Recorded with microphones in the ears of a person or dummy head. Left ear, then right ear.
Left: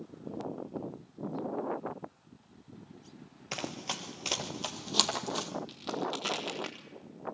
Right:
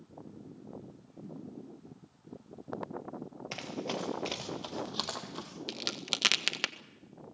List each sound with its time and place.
3.5 s running footsteps: 10° left (ahead or behind), 1.9 m; by 5.5 s 40° left (ahead or behind), 2.5 m
5.7 s a crack: 55° right (ahead or behind), 1.7 m